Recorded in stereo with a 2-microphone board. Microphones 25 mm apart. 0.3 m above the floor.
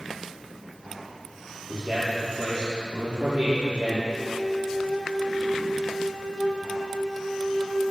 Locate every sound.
1.7 s a man speaking: 60° right (ahead or behind), 7 m
4.1 s a flute: 70° left (ahead or behind), 7 m